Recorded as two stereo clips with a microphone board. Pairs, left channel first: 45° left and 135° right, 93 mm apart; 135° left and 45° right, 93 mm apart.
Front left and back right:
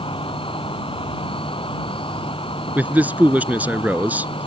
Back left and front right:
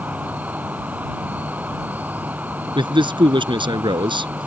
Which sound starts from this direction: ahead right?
A man speaking, at 2.8 s.